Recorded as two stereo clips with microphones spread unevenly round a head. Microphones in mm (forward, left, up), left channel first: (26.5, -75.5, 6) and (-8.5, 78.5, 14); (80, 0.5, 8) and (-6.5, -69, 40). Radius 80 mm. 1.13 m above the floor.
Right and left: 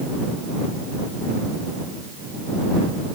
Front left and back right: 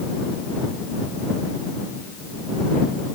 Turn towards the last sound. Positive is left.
No sound to turn to.